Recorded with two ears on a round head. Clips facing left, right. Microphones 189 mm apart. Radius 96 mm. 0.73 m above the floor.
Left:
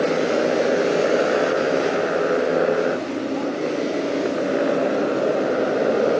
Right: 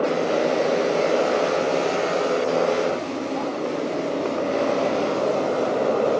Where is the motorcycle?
15° left (ahead or behind).